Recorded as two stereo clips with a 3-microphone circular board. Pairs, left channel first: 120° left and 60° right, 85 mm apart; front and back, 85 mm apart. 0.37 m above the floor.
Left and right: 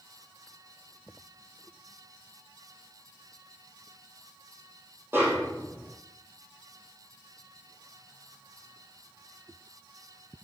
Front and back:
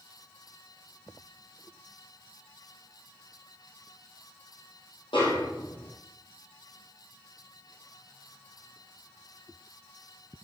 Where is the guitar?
No guitar in this recording.